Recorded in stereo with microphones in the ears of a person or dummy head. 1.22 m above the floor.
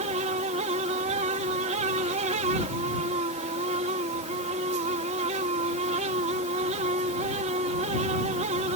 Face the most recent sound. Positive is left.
turn(degrees=-35)  # may be behind; listen again after turning